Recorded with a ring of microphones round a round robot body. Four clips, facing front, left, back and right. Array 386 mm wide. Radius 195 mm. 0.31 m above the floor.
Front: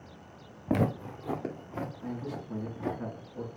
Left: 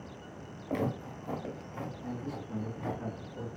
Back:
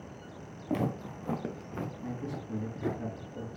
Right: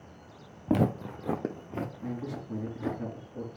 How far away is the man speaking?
About 3 m.